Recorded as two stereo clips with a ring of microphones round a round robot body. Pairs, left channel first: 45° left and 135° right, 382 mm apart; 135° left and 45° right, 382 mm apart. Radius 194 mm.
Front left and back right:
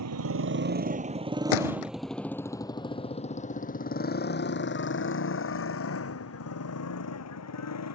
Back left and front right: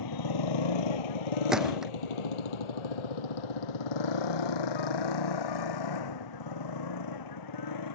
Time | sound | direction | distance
0.0 | a motorcycle | 175° left | ?
1.5 | a gunshot | 45° left | ?